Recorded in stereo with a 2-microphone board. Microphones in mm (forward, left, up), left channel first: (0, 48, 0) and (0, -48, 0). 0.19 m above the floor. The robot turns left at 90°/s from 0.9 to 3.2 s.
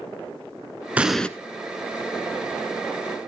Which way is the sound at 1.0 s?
15° right (ahead or behind).